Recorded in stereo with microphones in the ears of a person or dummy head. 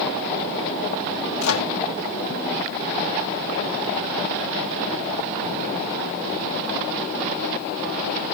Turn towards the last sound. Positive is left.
turn(degrees=90)